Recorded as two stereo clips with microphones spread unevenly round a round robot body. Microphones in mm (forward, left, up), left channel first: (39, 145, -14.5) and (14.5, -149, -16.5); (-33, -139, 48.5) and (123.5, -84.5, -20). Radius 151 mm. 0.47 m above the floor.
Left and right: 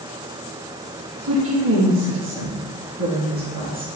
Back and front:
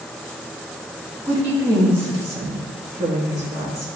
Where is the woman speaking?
55° right, 3.5 m; by 3.9 s 35° right, 4.5 m.